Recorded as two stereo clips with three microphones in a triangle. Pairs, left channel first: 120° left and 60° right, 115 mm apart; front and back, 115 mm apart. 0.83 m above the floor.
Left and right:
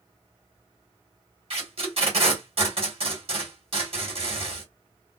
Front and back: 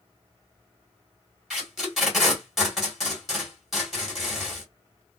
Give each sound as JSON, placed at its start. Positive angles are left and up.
{"t": 1.5, "sound": "tape being pulled", "azimuth_deg": -90, "distance_m": 1.6}